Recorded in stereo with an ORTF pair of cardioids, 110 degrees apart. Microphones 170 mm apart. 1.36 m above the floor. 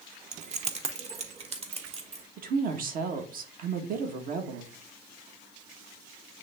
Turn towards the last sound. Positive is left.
turn(degrees=-55)